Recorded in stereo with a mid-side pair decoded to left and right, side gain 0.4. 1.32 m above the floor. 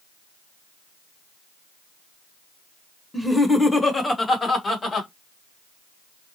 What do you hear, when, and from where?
3.1 s laughter: 5° left, 1.3 m; by 5.1 s 45° left, 1.9 m